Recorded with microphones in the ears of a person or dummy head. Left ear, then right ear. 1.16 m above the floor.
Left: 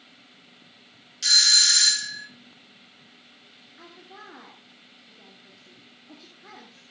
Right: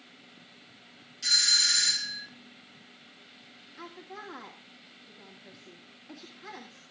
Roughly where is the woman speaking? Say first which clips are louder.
Right 3 dB; right.